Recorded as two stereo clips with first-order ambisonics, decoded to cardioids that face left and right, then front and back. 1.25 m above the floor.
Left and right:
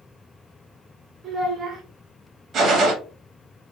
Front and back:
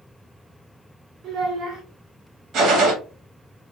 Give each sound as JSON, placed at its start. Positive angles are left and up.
{"t": 1.2, "sound": "a child speaking", "azimuth_deg": -160, "distance_m": 0.7}
{"t": 2.5, "sound": "a gunshot", "azimuth_deg": -140, "distance_m": 0.7}